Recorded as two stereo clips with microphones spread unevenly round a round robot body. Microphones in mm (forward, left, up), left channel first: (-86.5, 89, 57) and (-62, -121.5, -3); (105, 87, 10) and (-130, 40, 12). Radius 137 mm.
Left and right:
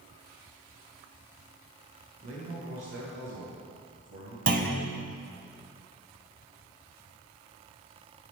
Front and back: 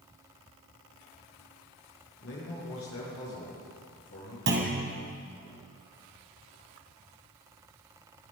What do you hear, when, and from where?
2.2 s a man speaking: 30° right, 7.5 m
4.5 s a clunk: 120° right, 2.5 m